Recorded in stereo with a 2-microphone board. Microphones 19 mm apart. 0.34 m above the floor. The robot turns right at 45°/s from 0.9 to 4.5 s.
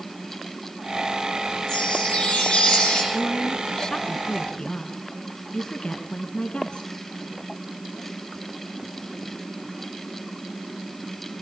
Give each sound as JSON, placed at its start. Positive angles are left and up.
{"t": 1.7, "sound": "a chime", "azimuth_deg": 55, "distance_m": 9.5}
{"t": 3.1, "sound": "a woman speaking", "azimuth_deg": 10, "distance_m": 3.0}